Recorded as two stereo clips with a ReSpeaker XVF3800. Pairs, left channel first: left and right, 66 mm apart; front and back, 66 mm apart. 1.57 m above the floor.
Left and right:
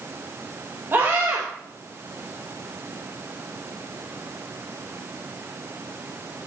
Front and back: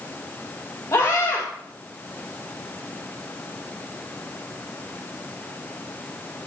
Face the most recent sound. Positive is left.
turn(degrees=-35)